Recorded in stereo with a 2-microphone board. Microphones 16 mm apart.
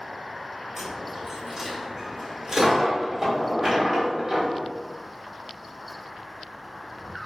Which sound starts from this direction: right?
A dropped coin, at 0.8 s.